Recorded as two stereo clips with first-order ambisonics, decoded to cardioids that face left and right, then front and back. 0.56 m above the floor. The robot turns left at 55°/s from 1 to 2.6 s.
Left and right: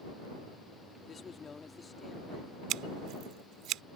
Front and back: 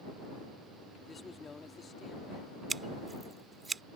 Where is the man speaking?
75° left; by 2.5 s straight ahead.